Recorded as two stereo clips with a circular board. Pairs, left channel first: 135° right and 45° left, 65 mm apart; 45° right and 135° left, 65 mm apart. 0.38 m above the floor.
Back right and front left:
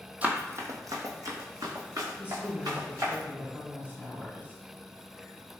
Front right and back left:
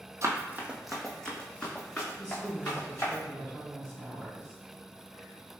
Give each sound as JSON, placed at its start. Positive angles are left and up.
{"t": 0.2, "sound": "running footsteps", "azimuth_deg": 110, "distance_m": 0.6}
{"t": 2.2, "sound": "a woman speaking", "azimuth_deg": 65, "distance_m": 1.5}